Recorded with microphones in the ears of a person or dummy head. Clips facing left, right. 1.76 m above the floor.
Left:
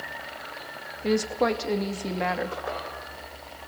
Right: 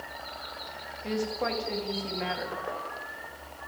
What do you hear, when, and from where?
1.0 s a woman speaking: 70° left (ahead or behind), 2.5 m